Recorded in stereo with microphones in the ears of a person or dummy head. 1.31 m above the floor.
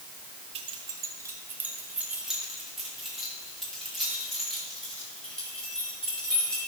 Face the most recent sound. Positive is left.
turn(degrees=5)  # may be behind; listen again after turning